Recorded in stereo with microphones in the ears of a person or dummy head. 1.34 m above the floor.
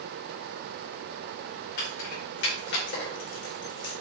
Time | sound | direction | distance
1.8 | keys jangling | 65° left (ahead or behind) | 3.5 m